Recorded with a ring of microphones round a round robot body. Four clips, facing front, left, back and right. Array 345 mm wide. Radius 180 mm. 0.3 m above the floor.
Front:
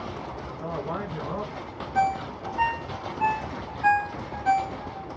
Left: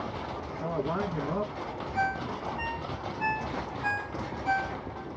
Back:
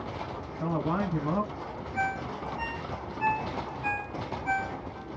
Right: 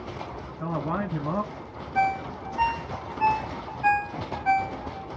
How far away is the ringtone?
About 0.9 m.